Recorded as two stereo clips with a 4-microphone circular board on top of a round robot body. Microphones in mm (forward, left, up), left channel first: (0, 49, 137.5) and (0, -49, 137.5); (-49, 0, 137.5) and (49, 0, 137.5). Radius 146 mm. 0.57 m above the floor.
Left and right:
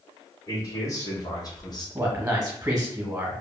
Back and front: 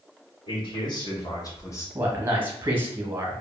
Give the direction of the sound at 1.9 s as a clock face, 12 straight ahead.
1 o'clock.